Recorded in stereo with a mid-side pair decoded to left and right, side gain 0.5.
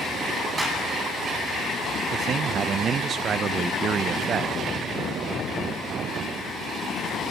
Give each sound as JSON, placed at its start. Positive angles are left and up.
{"t": 0.6, "sound": "a clap", "azimuth_deg": -20, "distance_m": 8.5}
{"t": 2.1, "sound": "a man speaking", "azimuth_deg": -50, "distance_m": 0.6}